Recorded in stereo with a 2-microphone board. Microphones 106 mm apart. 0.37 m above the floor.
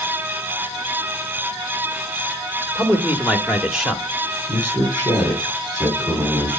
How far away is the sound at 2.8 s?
About 1.1 m.